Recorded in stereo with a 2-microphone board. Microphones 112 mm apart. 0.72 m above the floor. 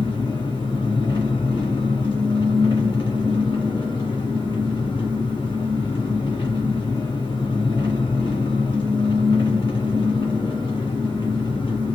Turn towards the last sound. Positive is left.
turn(degrees=45)  # may be behind; listen again after turning